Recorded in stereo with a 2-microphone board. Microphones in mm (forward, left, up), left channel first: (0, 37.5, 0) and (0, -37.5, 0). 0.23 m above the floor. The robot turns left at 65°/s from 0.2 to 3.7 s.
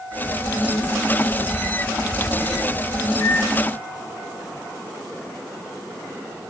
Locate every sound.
3.2 s a microwave: 35° left (ahead or behind), 2.5 m; by 3.6 s 15° left (ahead or behind), 2.5 m